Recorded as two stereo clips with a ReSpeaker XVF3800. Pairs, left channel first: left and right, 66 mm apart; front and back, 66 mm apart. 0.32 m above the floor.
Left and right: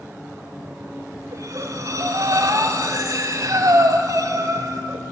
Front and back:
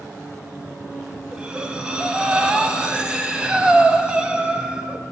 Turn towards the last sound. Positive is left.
turn(degrees=-105)